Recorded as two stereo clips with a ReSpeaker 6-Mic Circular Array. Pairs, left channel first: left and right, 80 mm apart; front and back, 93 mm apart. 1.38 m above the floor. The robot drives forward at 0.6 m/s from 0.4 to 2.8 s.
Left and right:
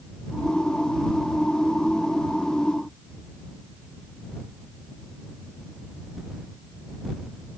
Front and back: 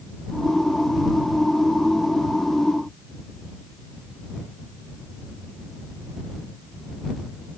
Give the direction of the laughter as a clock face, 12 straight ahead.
No laughter in this recording.